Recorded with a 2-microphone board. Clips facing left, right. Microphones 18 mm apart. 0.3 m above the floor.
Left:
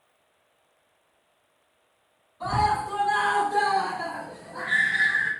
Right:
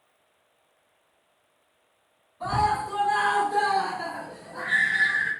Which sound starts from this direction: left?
A scream, at 2.4 s.